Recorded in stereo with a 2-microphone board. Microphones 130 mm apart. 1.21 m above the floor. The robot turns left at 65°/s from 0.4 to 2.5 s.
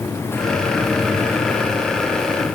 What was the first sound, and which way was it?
Only background noise.